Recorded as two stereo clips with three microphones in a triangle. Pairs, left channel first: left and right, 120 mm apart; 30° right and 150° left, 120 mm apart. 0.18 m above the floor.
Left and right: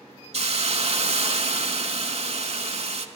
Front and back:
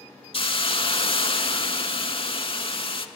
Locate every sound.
0.3 s a hiss: 70° right, 0.6 m